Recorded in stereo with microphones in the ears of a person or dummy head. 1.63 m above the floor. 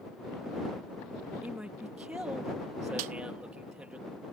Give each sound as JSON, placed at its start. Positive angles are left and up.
{"t": 1.4, "sound": "a man speaking", "side_deg": -10}
{"t": 3.0, "sound": "a snare drum", "side_deg": -45}